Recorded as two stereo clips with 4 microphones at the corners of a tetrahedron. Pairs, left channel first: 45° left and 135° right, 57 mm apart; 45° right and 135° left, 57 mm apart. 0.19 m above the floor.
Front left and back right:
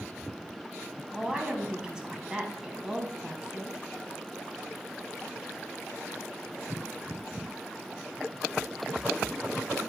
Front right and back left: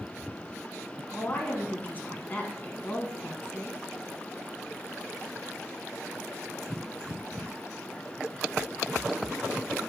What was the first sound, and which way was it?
A woman speaking, 65° right.